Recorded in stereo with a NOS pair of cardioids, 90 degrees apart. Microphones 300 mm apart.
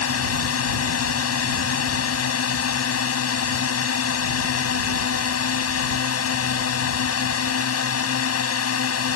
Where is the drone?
55° left.